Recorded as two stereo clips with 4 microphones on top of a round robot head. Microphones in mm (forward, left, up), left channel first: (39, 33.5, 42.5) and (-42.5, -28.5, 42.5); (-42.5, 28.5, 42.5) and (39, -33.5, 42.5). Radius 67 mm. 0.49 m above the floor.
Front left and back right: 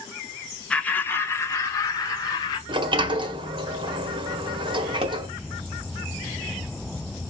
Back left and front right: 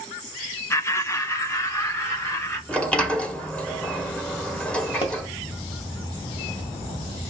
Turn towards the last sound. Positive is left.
turn(degrees=-175)